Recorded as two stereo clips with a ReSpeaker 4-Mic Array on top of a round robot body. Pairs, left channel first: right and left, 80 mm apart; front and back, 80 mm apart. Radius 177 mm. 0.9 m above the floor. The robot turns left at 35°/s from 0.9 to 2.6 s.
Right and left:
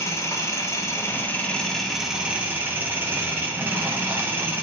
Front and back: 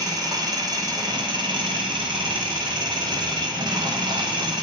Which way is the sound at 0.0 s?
145° right.